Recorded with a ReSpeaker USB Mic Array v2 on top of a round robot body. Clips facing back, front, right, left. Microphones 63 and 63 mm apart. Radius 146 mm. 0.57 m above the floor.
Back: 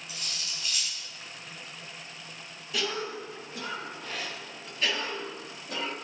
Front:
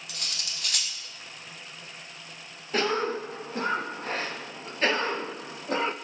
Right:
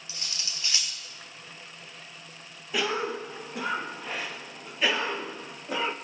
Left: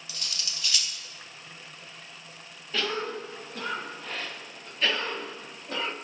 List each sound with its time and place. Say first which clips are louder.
0.1 s cutlery clinking: front 2 dB, even; 25° right, 1.4 m
2.7 s a cough: front 6 dB, right 2 dB; 20° right, 0.7 m